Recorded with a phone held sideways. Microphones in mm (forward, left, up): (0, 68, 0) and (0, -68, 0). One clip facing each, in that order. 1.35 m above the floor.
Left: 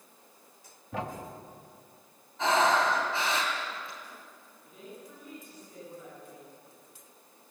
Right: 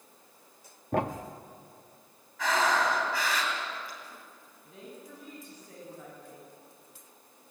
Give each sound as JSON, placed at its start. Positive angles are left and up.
{"t": 0.9, "sound": "a thud", "side_deg": -55, "distance_m": 1.1}
{"t": 2.4, "sound": "breathing", "side_deg": 25, "distance_m": 4.0}
{"t": 4.6, "sound": "a woman speaking", "side_deg": -75, "distance_m": 8.5}